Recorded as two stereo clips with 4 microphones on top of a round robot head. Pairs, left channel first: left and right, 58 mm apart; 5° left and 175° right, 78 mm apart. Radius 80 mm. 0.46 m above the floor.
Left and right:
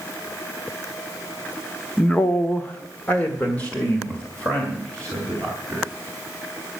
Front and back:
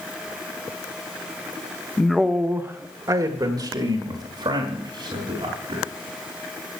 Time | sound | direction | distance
2.0 | a man speaking | 60° left | 0.9 m